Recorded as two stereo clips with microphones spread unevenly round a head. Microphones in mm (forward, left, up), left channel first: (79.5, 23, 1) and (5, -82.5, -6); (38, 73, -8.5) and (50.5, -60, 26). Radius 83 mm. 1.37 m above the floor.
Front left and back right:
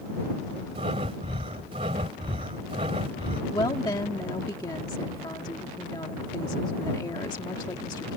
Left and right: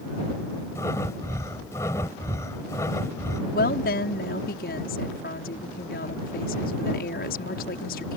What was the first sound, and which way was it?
Breathing, 175° left.